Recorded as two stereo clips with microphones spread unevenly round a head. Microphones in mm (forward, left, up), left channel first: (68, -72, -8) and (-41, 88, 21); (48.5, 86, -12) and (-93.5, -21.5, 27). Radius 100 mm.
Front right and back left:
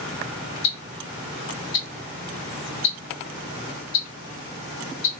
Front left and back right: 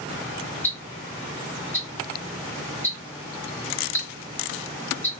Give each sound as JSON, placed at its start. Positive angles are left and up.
{"t": 0.6, "sound": "ticking", "azimuth_deg": -40, "distance_m": 0.9}